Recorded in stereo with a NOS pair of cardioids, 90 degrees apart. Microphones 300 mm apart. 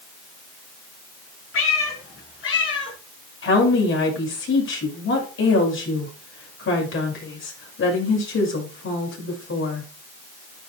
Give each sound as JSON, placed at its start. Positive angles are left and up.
{"t": 1.5, "sound": "a cat meowing", "azimuth_deg": 50, "distance_m": 6.0}
{"t": 3.4, "sound": "a woman speaking", "azimuth_deg": 45, "distance_m": 6.5}